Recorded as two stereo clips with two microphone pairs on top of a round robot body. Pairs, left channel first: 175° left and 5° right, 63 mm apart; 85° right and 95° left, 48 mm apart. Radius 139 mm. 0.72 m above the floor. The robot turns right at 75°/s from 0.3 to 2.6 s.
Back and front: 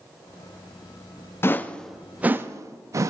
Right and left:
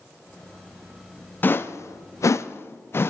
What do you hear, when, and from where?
1.4 s a whoosh: 135° right, 0.6 m; by 3.1 s 45° right, 0.6 m